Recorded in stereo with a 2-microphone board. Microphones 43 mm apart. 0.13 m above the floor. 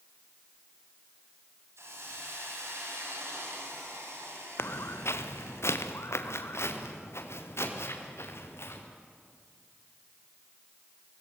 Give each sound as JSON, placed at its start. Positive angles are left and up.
{"t": 1.8, "sound": "a hiss", "side_deg": -85, "distance_m": 7.5}
{"t": 4.6, "sound": "footsteps", "side_deg": 70, "distance_m": 1.6}